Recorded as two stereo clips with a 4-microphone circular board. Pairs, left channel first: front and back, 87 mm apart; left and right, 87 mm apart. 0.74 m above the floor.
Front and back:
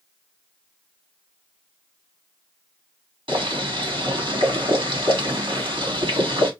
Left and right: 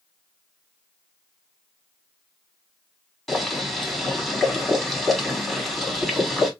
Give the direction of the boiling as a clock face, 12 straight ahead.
6 o'clock.